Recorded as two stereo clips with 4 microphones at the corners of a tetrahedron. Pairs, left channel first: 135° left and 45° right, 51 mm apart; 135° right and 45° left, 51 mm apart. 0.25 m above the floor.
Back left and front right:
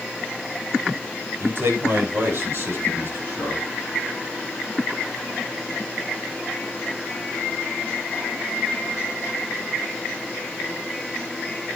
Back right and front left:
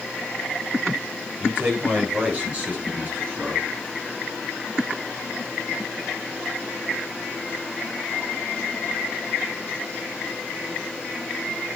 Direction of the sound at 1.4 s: 15° right.